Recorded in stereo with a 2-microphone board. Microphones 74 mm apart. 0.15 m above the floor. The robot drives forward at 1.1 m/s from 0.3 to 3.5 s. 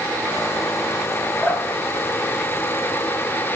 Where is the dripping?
Centre (ahead or behind), 9 m.